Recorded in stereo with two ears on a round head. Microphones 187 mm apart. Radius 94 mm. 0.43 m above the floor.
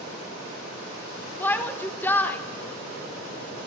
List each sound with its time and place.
1.4 s a shout: 10° left (ahead or behind), 0.8 m